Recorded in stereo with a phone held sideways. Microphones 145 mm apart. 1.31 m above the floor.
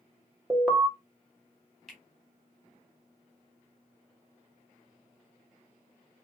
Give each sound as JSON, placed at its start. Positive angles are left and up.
{"t": 0.5, "sound": "an alarm", "side_deg": -5, "distance_m": 0.8}
{"t": 1.9, "sound": "a finger snap", "side_deg": 5, "distance_m": 1.3}